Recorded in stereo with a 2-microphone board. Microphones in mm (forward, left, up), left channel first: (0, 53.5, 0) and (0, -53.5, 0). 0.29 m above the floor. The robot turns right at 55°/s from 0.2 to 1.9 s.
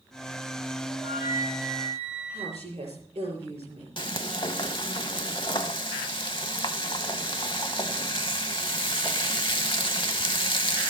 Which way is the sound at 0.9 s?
170° left.